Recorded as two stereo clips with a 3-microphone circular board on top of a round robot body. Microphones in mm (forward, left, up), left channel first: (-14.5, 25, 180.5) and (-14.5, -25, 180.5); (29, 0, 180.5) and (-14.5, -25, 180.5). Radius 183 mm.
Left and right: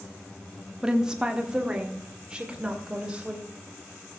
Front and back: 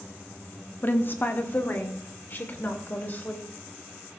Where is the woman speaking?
15° right, 1.4 m.